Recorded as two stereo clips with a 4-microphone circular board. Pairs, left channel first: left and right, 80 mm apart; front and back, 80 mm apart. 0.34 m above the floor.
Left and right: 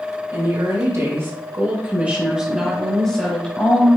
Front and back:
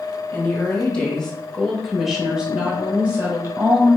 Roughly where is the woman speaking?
Ahead right.